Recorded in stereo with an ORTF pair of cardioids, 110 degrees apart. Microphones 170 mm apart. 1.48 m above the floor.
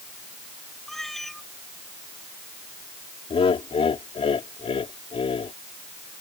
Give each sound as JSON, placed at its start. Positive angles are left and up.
{"t": 0.9, "sound": "a cat meowing", "azimuth_deg": 0}
{"t": 3.3, "sound": "laughter", "azimuth_deg": 35}